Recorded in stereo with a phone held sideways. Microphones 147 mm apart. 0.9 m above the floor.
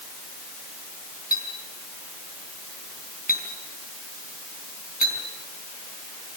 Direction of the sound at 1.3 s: 85° left.